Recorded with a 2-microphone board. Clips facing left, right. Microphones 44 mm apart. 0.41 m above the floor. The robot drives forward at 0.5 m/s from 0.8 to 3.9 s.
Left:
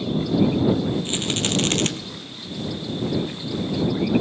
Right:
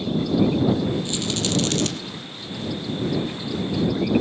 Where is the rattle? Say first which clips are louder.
Left 1 dB; 35° left (ahead or behind), 2.0 m; by 1.9 s 45° left (ahead or behind), 1.7 m.